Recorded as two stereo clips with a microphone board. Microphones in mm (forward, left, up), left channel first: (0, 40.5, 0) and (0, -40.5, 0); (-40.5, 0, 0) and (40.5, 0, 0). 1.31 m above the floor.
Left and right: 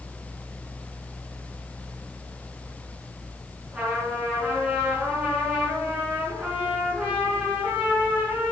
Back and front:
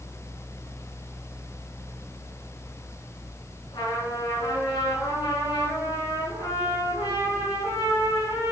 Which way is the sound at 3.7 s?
165° right.